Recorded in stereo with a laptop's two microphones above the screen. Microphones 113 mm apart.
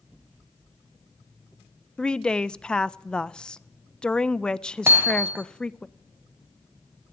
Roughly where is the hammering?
Centre.